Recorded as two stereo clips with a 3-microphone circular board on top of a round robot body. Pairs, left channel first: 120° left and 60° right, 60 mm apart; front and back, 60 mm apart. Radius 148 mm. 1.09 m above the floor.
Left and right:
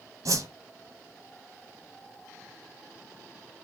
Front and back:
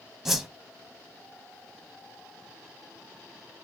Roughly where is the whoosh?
Right.